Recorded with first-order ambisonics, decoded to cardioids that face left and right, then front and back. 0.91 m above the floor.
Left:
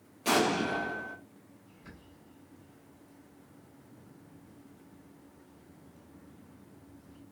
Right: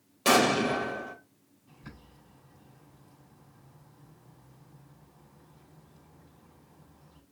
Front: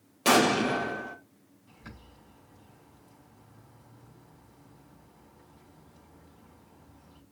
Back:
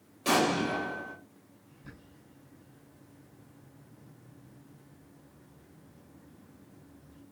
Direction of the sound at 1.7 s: 10° right.